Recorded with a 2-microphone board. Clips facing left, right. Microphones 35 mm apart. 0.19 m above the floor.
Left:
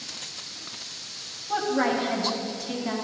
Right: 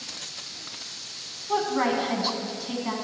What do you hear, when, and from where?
1.5 s a woman speaking: 15° right (ahead or behind), 1.2 m